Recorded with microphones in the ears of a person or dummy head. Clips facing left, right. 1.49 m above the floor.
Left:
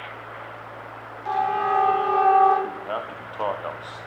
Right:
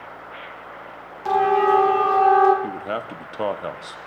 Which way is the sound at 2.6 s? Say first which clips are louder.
Right 2 dB; 20° right (ahead or behind).